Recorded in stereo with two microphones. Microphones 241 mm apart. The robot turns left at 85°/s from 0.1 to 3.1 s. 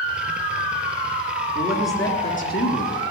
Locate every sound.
1.6 s a man speaking: 150° right, 3 m; by 3.0 s 85° left, 3 m